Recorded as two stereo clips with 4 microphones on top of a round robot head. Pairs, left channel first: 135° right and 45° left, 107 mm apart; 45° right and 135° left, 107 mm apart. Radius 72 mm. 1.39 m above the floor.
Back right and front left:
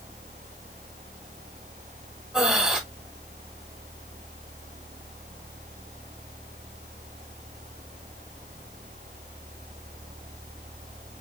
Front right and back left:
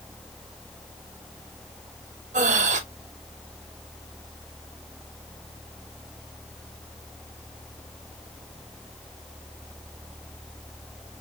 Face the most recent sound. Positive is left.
turn(degrees=130)